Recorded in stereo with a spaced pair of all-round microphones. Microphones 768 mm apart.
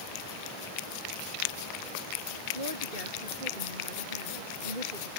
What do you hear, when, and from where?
2.5 s a woman speaking: 80° right; by 5.1 s 90° right